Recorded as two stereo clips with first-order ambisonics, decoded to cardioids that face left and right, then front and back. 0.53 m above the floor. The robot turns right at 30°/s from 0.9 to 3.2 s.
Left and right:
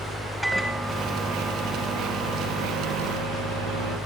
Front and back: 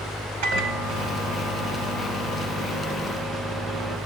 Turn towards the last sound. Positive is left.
turn(degrees=-110)